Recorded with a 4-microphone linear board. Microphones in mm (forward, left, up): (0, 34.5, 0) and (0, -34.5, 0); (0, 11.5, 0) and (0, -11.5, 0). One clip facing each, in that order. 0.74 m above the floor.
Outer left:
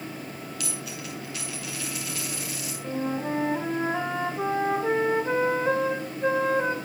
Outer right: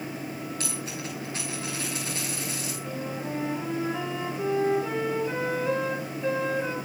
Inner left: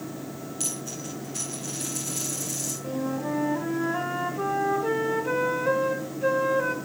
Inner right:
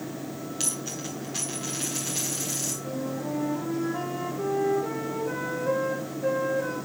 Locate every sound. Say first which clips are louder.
0.6 s a dropped coin: outer right 2 dB, inner right 1 dB; 35° right (ahead or behind), 8 m
2.8 s a flute: outer left 7 dB, inner left 2 dB; 45° left (ahead or behind), 3 m